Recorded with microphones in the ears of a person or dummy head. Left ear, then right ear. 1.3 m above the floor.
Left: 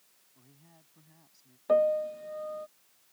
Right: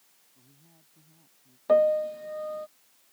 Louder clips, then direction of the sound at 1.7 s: Right 3 dB; 15° right (ahead or behind).